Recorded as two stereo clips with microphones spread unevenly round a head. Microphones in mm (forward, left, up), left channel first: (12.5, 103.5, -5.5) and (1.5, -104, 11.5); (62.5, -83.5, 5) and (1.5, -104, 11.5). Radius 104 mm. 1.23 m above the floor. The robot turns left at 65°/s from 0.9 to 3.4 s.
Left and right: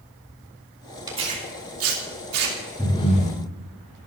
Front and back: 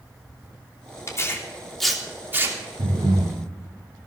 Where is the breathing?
170° left, 3.5 m; by 3.4 s 135° left, 3.5 m.